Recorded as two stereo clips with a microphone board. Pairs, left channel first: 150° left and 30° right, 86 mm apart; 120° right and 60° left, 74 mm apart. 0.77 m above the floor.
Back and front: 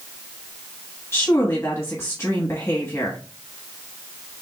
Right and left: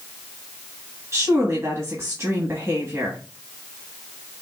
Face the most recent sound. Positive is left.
turn(degrees=100)